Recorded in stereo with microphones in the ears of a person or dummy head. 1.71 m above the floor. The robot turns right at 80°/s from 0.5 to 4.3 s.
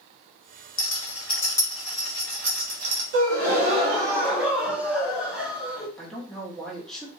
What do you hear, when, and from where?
0.8 s a rattle: 80° left, 1.2 m; by 3.0 s 80° right, 1.2 m
3.1 s a gasp: 105° right, 0.8 m; by 5.9 s 10° right, 0.8 m
6.0 s a man speaking: centre (ahead or behind), 1.1 m